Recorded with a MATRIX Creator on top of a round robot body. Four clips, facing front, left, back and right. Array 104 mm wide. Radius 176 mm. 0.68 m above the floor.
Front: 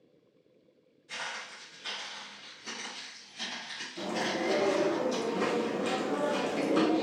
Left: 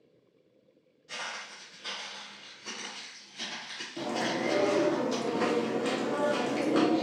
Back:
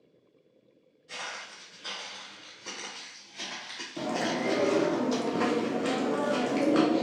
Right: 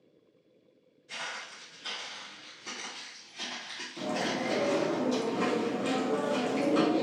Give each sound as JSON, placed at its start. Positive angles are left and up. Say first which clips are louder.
{"t": 1.1, "sound": "footsteps", "louder": "left 1 dB, even", "azimuth_deg": 125, "distance_m": 1.2}
{"t": 4.0, "sound": "chewing", "louder": "left 1 dB, back 2 dB", "azimuth_deg": 155, "distance_m": 0.7}